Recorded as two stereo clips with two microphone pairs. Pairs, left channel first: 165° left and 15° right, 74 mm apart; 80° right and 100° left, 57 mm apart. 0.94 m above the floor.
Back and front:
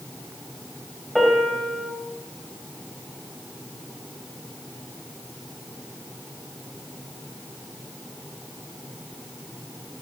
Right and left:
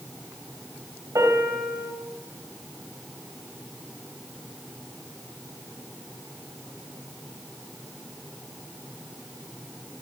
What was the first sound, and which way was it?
A piano, 75° left.